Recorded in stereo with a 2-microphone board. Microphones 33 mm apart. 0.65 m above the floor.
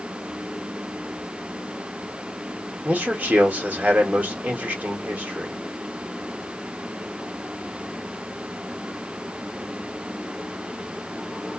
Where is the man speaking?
60° right (ahead or behind), 1.9 m.